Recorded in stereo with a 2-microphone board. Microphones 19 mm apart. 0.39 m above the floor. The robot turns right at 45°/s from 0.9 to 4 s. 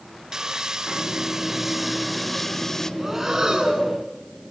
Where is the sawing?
55° right, 1.5 m; by 2.9 s 35° left, 1.5 m.